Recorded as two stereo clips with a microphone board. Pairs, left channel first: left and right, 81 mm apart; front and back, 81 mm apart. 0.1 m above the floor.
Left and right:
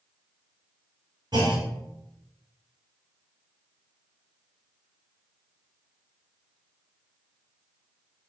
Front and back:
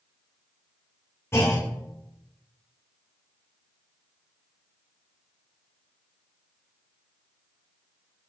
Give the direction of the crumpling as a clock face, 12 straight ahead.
No crumpling in this recording.